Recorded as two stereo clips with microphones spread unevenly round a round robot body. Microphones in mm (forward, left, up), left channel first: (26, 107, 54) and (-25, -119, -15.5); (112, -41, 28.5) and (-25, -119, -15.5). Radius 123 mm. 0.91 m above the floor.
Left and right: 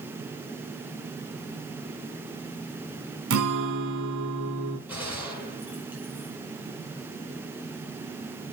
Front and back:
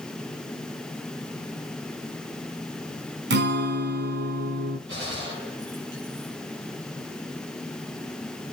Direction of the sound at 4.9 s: 175° left.